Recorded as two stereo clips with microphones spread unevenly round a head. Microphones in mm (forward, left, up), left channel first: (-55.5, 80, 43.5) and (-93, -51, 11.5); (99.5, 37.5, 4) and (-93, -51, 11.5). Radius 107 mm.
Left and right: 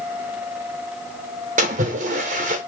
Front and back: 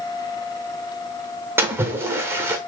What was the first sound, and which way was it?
A splash, 85° right.